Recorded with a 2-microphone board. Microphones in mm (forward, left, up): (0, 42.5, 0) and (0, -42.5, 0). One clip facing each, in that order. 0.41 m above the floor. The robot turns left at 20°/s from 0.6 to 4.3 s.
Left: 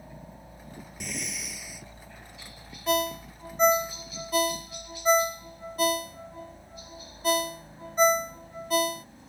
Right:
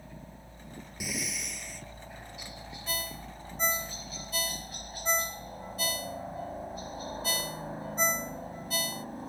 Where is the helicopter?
15° left; by 9.3 s 60° right.